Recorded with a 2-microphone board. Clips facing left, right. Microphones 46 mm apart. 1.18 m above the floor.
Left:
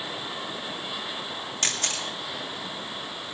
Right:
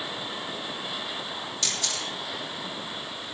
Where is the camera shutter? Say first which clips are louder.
Left 3 dB; 50° left (ahead or behind), 2.5 m.